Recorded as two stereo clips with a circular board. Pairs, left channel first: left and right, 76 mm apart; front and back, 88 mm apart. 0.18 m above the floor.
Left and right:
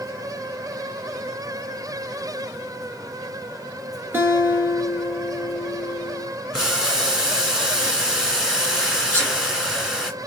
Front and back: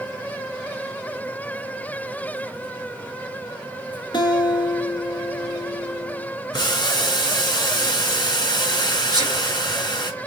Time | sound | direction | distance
4.1 | a guitar | 30° right | 1.4 m
6.5 | boiling | 10° right | 2 m
9.1 | a sneeze | 155° left | 2 m